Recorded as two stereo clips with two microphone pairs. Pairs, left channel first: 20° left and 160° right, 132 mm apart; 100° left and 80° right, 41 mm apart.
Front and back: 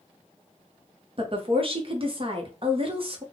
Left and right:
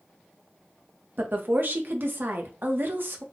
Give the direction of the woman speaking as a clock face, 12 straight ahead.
4 o'clock.